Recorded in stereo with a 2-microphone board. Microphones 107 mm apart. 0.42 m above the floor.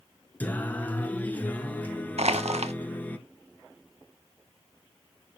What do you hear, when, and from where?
0.4 s singing: 15° left (ahead or behind), 1.0 m
2.2 s crushing: 80° right, 0.6 m